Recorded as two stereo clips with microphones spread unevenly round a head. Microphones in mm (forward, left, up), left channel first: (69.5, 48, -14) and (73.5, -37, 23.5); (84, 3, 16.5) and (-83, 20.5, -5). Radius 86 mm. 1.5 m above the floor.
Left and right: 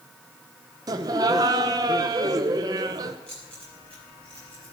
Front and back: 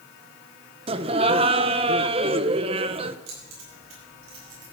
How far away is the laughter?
About 0.7 m.